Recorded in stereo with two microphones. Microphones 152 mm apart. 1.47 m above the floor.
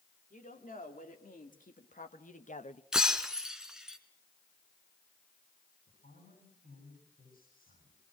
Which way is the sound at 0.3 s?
75° left (ahead or behind).